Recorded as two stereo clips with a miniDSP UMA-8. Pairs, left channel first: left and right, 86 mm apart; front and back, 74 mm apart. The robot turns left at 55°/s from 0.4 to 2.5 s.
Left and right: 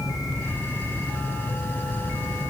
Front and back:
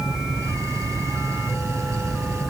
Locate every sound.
Only background noise.